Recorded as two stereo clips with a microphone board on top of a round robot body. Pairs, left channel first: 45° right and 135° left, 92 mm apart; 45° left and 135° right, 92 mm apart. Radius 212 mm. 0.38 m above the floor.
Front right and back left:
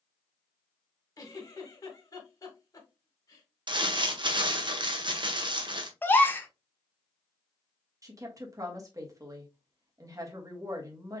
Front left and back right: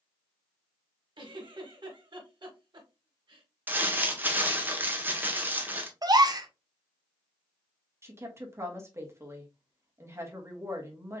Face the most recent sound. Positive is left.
turn(degrees=175)